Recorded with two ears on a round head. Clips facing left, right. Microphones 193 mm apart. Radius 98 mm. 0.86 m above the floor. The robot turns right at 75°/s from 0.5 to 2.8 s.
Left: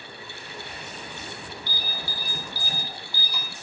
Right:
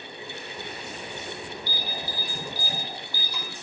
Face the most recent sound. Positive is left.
turn(degrees=15)  # may be behind; listen again after turning